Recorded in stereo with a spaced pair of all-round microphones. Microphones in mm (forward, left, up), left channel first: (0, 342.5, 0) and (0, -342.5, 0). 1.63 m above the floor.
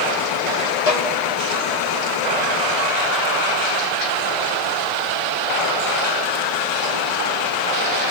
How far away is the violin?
About 1.6 m.